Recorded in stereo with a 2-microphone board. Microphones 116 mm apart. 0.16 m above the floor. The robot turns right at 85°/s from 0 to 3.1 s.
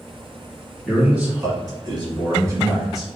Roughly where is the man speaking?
Behind.